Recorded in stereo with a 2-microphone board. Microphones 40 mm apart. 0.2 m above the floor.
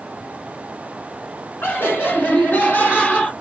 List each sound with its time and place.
1.6 s laughter: 55° left (ahead or behind), 1.9 m; by 3.3 s 35° left (ahead or behind), 1.5 m